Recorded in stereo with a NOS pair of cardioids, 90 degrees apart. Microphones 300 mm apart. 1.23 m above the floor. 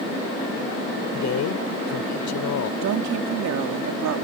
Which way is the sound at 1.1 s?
65° left.